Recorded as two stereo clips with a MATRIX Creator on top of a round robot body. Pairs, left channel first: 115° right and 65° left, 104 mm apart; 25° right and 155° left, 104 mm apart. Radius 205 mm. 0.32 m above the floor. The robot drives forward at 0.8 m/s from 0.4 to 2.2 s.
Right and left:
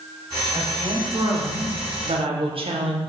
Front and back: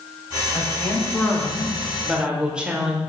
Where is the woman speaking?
35° left, 2 m; by 3.0 s 75° left, 1.5 m.